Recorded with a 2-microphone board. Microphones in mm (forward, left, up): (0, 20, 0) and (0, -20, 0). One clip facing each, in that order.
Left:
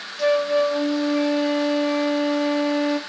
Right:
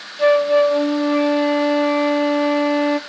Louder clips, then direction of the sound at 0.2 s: Right 5 dB; 25° right (ahead or behind).